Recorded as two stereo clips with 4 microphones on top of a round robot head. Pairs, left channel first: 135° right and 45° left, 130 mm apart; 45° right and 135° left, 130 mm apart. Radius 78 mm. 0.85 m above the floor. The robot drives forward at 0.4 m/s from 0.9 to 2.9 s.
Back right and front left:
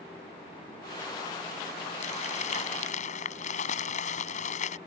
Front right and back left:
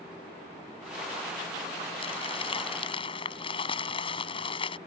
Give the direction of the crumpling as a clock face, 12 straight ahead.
3 o'clock.